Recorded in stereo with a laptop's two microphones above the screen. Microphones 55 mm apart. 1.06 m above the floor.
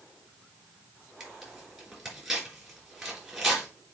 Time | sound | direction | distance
1.2 | tearing paper | 5° right (ahead or behind) | 3.5 m